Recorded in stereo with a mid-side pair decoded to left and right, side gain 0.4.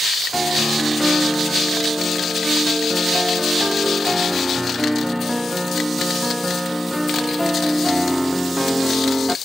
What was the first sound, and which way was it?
A piano, 5° right.